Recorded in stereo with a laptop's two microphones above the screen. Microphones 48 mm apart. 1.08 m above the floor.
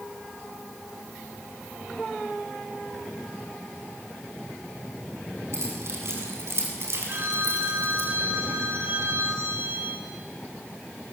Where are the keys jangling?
60° right (ahead or behind), 7.5 m.